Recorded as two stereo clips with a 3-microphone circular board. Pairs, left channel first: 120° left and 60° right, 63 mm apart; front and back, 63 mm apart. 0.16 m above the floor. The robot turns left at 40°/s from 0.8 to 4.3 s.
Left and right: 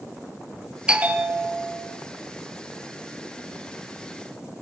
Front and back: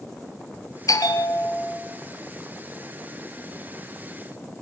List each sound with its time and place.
0.9 s a bell: 15° left, 2 m; by 1.8 s 20° right, 2 m